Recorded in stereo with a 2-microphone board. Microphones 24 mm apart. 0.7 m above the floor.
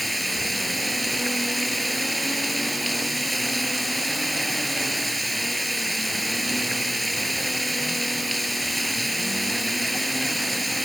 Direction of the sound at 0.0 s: Centre (ahead or behind).